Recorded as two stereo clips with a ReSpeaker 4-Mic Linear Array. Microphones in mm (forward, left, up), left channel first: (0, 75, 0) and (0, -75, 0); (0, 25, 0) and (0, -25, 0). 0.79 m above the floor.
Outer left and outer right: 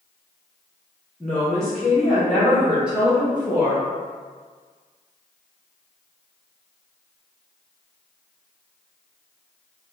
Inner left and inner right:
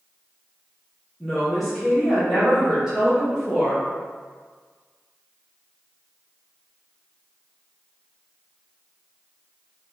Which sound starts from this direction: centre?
A woman speaking, at 1.2 s.